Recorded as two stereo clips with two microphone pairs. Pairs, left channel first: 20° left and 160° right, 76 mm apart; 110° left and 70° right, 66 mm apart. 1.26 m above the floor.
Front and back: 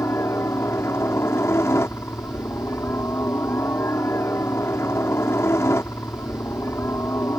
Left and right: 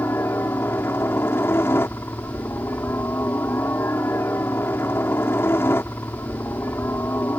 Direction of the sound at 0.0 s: 70° left.